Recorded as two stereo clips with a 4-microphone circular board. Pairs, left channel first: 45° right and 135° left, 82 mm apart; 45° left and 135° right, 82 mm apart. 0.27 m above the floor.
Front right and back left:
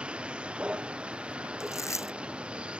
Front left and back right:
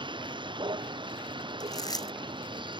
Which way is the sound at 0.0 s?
150° right.